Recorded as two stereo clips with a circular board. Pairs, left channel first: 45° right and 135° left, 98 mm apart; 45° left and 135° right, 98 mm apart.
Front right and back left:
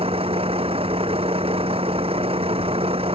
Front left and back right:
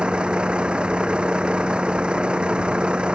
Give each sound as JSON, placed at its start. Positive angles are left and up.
{"t": 0.0, "sound": "a vehicle", "azimuth_deg": 145}